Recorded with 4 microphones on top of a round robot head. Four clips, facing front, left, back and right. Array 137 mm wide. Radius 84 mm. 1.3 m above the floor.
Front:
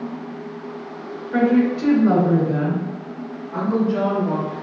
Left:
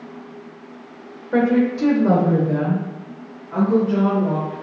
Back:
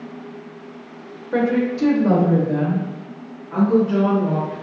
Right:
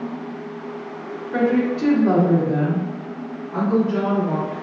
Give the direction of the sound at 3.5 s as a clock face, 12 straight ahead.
7 o'clock.